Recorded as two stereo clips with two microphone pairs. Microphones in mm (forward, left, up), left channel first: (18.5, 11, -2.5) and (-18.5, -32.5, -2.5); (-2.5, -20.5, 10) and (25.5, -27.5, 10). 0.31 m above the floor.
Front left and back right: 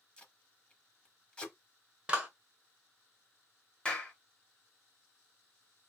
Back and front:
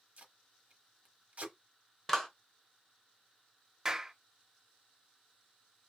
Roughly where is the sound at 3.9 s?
Ahead.